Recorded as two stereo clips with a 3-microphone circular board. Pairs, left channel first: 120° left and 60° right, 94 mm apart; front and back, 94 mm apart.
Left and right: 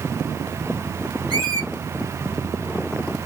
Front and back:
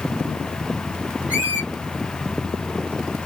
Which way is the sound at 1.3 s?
110° left.